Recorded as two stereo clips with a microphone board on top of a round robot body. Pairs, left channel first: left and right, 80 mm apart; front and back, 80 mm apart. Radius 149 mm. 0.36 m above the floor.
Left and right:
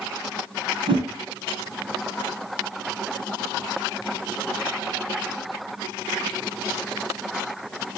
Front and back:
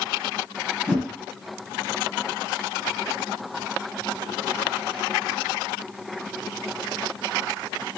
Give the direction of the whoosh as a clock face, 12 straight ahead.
3 o'clock.